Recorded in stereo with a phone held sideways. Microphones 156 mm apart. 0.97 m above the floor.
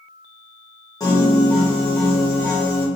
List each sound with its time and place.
1.0 s a piano: 25° left (ahead or behind), 1.2 m